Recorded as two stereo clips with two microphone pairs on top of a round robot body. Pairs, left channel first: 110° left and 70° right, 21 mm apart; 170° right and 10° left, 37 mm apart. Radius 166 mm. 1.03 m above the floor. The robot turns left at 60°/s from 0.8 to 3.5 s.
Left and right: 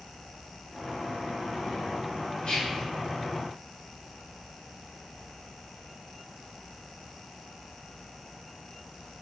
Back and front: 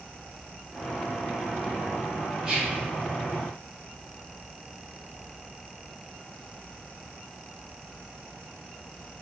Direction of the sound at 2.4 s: 80° left.